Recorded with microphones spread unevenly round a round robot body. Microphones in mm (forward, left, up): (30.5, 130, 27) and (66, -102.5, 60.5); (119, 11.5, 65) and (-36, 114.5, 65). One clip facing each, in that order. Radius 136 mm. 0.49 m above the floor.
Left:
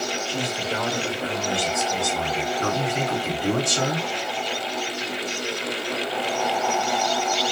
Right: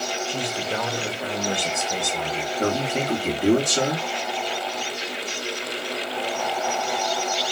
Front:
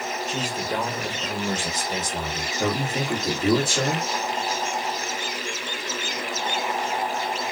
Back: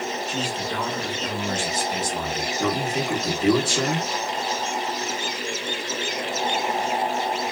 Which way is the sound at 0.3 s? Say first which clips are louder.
Even, even; 15° right.